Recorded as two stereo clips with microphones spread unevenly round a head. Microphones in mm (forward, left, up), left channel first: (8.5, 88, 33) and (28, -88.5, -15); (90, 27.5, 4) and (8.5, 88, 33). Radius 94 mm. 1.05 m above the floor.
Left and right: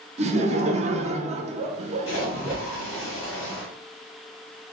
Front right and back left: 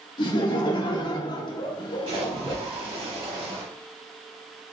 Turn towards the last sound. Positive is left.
turn(degrees=120)